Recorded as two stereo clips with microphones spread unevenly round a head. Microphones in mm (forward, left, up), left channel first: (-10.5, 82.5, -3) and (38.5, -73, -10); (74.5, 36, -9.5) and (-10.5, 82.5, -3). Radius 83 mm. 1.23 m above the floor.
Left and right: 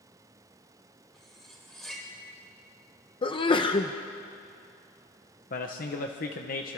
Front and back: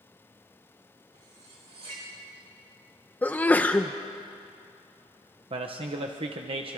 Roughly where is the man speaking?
Behind left.